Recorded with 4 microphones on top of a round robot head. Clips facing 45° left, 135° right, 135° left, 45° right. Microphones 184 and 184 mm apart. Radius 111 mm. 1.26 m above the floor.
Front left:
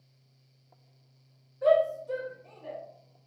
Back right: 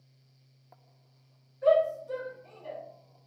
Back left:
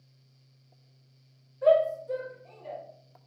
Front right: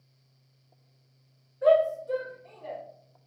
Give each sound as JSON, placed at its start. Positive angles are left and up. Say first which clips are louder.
{"t": 1.6, "sound": "a shout", "louder": "even, front right 1 dB", "azimuth_deg": 20, "distance_m": 1.1}